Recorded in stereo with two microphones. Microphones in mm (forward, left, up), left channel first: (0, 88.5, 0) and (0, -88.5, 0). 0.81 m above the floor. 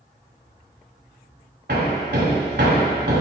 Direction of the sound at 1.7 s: 70° right (ahead or behind).